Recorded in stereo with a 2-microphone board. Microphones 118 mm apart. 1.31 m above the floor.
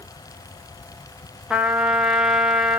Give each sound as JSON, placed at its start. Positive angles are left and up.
{"t": 1.5, "sound": "a trumpet", "side_deg": -5, "distance_m": 1.2}